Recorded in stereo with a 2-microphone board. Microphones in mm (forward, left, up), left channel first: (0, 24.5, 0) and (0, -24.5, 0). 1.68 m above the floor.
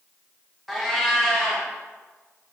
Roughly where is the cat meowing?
Centre.